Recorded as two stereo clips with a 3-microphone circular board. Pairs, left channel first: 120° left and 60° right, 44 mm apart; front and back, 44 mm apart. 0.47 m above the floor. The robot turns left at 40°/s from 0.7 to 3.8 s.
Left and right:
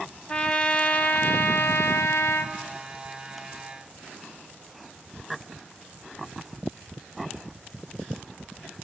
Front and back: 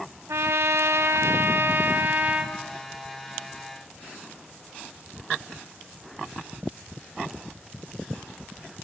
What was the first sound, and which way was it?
A trumpet, 175° right.